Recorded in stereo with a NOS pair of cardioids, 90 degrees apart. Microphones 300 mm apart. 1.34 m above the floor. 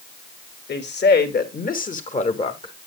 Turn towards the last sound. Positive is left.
turn(degrees=15)